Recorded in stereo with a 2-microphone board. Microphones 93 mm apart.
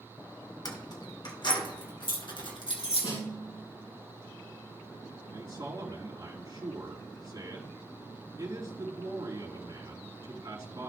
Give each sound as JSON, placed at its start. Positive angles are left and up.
{"t": 0.7, "sound": "keys jangling", "side_deg": 45, "distance_m": 1.4}
{"t": 3.0, "sound": "a snare drum", "side_deg": 75, "distance_m": 4.5}
{"t": 5.3, "sound": "a man speaking", "side_deg": -50, "distance_m": 2.5}